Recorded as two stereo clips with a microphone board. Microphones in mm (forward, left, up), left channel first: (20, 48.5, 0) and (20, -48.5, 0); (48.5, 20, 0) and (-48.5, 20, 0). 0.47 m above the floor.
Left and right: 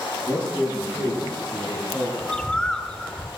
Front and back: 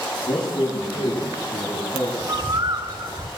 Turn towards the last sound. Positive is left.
turn(degrees=170)